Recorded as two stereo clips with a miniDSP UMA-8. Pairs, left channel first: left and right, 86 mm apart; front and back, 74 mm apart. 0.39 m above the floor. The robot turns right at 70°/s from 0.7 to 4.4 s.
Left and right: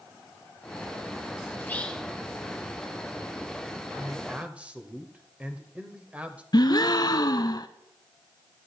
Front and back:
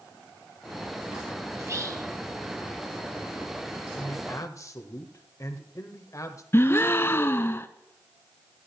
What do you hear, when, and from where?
1.6 s whispering: 140° left, 1.3 m; by 2.1 s straight behind, 1.3 m
4.0 s a man speaking: 50° right, 1.2 m; by 6.4 s 20° right, 1.2 m
6.5 s a gasp: 55° left, 0.5 m